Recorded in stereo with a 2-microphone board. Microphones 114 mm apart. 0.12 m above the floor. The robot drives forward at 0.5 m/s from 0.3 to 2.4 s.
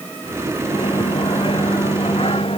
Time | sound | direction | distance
0.6 | a microwave | 50° left (ahead or behind) | ?